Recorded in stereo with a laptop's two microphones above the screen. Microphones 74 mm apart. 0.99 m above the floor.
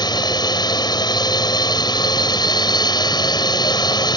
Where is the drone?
75° left (ahead or behind).